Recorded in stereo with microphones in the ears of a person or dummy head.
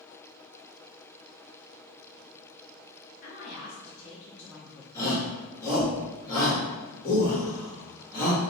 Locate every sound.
3.2 s a woman speaking: 50° left (ahead or behind), 1.0 m; by 4.8 s 20° right (ahead or behind), 0.5 m
5.0 s a shout: 20° left (ahead or behind), 1.5 m